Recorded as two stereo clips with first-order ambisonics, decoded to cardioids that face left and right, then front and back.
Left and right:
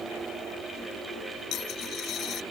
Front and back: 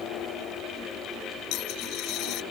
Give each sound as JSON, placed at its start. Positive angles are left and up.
{"t": 1.5, "sound": "a dropped coin", "azimuth_deg": 40}